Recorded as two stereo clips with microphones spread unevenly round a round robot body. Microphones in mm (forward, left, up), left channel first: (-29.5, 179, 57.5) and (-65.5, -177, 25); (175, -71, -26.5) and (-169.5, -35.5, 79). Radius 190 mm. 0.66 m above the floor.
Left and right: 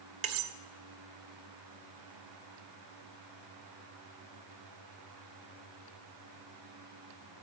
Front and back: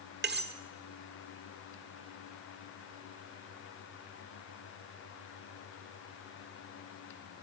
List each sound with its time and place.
0.2 s cutlery clinking: 120° right, 1.5 m